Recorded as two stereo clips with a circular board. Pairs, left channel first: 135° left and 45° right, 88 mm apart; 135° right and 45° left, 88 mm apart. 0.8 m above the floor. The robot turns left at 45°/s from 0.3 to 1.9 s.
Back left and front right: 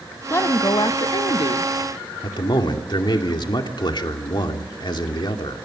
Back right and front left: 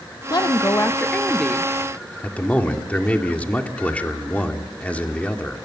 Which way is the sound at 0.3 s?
170° right.